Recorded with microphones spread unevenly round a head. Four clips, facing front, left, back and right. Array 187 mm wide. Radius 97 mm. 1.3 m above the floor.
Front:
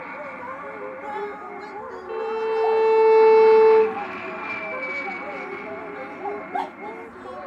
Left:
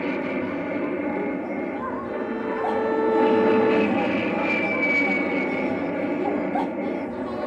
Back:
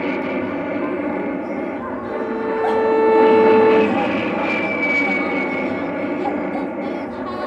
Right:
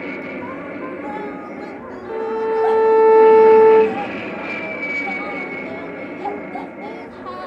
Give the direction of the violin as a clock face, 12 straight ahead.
3 o'clock.